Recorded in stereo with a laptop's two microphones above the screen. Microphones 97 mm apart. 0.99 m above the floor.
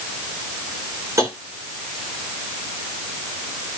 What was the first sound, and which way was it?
Tapping, 35° right (ahead or behind).